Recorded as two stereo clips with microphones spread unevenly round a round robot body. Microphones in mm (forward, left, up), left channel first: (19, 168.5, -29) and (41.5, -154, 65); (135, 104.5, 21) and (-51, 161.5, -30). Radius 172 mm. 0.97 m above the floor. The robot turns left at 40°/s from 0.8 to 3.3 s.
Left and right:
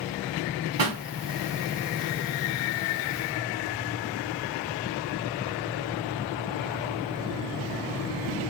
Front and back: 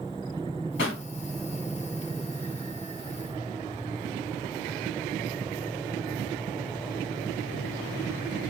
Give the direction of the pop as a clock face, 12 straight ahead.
2 o'clock.